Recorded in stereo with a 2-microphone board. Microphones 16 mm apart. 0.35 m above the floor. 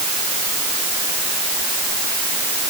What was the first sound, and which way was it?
Only background noise.